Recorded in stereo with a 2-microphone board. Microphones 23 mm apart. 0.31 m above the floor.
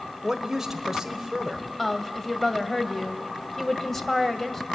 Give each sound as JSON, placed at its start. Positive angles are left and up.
{"t": 0.2, "sound": "a woman speaking", "side_deg": -10, "distance_m": 1.3}
{"t": 1.8, "sound": "a woman speaking", "side_deg": 10, "distance_m": 1.7}